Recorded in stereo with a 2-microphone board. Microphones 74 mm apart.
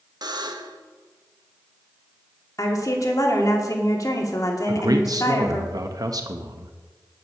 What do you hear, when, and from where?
0.2 s a buzzer: 65° right (ahead or behind), 1.1 m
2.6 s a woman speaking: 50° left (ahead or behind), 2 m
4.7 s a man speaking: 55° right (ahead or behind), 1.0 m